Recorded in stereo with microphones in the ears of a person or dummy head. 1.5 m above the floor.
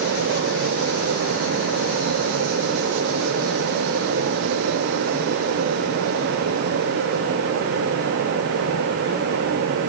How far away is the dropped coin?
No dropped coin in this recording.